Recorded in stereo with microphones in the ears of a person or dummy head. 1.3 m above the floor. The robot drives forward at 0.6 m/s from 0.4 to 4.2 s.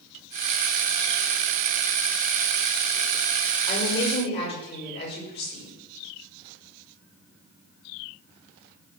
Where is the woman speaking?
30° left (ahead or behind), 6 m.